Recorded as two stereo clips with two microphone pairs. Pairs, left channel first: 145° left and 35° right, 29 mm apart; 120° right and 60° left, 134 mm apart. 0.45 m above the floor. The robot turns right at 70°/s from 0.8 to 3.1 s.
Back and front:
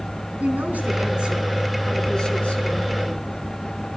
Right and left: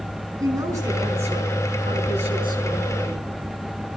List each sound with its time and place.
0.4 s a woman speaking: 5° right, 5 m; by 3.2 s 155° left, 5 m